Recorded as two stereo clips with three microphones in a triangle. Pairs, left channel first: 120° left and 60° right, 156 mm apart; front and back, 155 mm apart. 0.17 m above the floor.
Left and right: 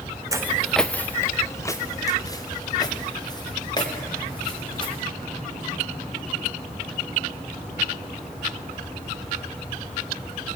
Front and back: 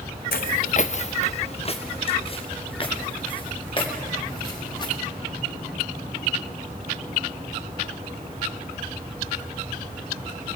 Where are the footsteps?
10° left, 0.6 m; by 5.0 s 60° left, 5.5 m.